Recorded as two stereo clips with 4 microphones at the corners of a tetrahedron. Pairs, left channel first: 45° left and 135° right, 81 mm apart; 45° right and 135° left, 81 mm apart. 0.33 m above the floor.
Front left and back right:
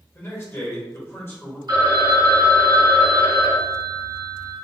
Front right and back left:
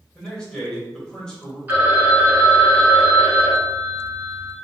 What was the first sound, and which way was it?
A man speaking, 25° left.